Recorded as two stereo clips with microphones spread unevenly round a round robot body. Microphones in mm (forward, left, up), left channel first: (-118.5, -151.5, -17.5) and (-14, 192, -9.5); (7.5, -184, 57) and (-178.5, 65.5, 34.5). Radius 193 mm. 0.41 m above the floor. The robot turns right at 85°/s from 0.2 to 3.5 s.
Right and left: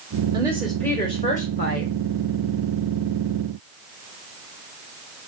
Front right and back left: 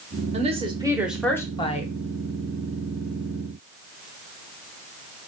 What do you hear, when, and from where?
0.3 s a woman speaking: 135° left, 0.8 m; by 1.9 s 90° right, 0.8 m